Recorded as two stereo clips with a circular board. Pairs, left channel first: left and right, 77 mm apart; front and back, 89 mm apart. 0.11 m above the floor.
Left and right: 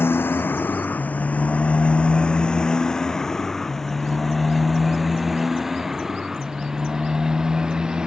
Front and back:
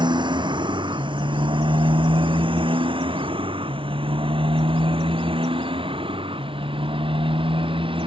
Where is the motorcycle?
150° left; by 8.1 s 170° right.